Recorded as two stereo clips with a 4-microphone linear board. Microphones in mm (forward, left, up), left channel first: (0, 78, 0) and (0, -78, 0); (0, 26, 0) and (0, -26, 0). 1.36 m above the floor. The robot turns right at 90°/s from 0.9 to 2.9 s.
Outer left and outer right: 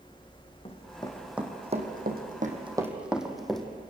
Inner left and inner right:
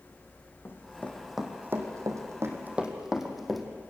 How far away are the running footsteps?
About 5 m.